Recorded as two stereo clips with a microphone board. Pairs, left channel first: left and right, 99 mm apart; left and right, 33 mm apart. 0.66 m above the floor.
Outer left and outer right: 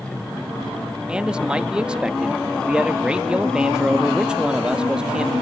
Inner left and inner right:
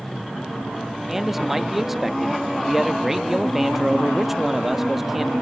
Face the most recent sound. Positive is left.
turn(degrees=-10)  # may be behind; listen again after turning